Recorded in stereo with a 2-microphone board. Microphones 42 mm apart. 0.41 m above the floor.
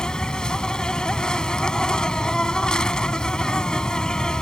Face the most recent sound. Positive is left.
turn(degrees=20)  # may be behind; listen again after turning